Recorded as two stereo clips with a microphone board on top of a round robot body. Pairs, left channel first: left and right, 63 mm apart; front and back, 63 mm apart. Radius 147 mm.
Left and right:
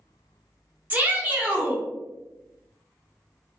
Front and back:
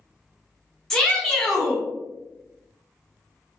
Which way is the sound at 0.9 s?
70° right.